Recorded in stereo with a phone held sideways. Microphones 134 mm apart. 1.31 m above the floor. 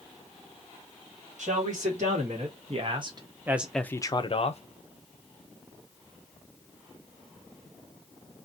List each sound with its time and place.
1.4 s a man speaking: 65° right (ahead or behind), 1.6 m; by 4.6 s 55° left (ahead or behind), 0.7 m